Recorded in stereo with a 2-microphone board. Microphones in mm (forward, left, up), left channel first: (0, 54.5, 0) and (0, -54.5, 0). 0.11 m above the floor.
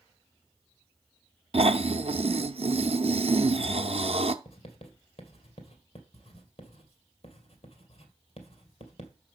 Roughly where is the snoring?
Right.